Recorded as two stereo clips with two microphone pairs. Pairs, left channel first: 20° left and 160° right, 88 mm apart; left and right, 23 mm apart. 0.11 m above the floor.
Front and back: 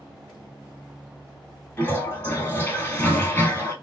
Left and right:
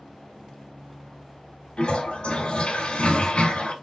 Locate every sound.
1.8 s a toilet flushing: 75° left, 1.0 m